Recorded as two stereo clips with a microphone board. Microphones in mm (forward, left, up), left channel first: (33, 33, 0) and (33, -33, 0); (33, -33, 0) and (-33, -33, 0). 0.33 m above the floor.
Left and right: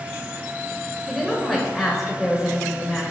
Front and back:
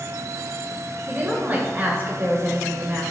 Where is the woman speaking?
Straight behind, 1.2 m.